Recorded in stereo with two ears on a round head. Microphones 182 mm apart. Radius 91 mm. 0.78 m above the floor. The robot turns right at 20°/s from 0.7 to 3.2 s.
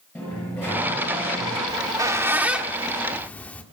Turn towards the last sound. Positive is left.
turn(degrees=10)  # may be behind; listen again after turning